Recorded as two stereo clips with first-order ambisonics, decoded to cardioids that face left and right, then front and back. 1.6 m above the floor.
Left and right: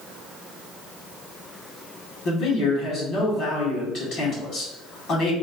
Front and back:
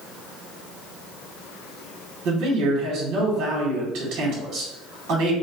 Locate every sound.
2.2 s a man speaking: 140° left, 1.2 m